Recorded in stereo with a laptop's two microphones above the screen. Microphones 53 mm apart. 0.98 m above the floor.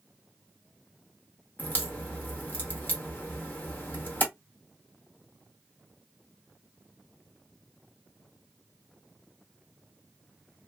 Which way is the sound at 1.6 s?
40° left (ahead or behind).